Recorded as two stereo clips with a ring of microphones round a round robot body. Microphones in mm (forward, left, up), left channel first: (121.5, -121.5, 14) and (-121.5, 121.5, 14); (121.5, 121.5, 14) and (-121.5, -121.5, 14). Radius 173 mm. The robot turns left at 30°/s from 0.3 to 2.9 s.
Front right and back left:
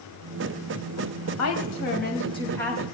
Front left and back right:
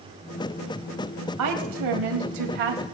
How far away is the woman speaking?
About 3.5 m.